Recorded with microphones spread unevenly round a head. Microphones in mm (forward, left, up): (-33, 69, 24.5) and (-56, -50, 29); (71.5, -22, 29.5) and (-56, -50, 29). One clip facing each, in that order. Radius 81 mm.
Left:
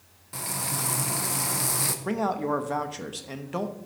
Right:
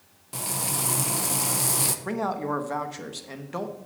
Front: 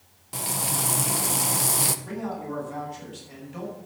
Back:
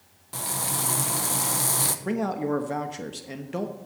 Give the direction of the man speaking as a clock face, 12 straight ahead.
7 o'clock.